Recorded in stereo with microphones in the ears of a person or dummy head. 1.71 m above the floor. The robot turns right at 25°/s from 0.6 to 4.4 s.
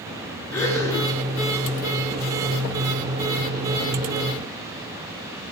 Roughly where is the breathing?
Centre.